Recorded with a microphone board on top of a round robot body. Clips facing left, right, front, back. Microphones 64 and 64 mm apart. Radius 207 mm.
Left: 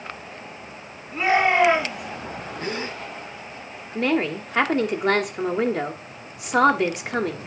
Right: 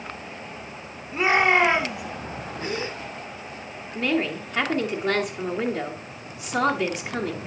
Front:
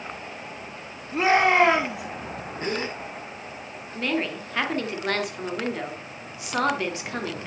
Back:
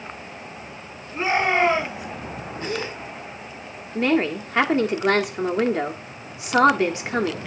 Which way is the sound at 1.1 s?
10° right.